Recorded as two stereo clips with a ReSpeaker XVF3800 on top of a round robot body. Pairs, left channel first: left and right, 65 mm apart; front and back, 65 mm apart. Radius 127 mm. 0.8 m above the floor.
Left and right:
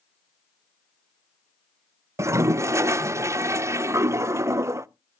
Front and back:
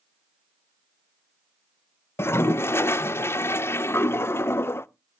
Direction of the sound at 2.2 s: 50° right.